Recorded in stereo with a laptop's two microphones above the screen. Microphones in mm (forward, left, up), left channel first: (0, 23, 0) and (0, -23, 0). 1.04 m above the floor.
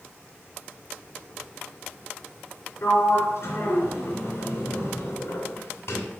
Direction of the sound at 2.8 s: 70° left (ahead or behind).